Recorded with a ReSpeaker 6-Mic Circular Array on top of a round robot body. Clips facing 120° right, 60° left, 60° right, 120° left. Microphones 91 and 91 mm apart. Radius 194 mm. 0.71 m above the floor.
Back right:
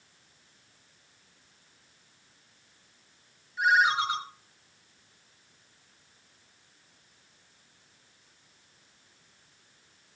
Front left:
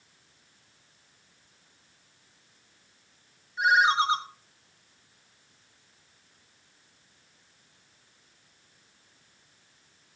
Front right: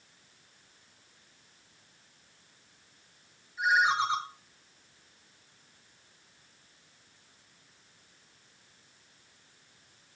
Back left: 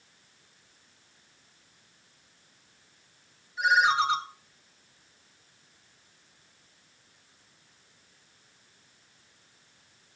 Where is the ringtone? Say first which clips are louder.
Front left 2 dB, back left 3 dB; 125° left, 1.7 m.